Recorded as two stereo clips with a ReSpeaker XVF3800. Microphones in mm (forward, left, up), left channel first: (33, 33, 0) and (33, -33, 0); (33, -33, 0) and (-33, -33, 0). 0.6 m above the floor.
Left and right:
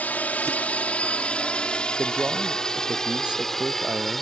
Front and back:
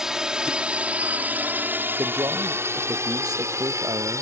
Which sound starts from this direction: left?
A drone, at 0.0 s.